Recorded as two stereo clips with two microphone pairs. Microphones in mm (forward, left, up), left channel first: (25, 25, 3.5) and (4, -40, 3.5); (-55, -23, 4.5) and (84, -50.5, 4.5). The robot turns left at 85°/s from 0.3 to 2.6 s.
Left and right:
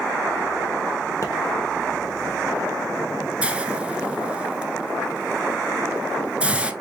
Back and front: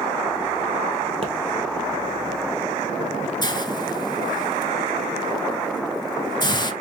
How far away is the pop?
About 1.1 m.